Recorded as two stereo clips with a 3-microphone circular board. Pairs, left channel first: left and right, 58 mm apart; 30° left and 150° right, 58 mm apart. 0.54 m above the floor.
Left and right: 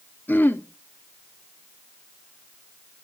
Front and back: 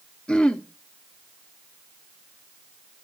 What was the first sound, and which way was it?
Throat clearing, 90° left.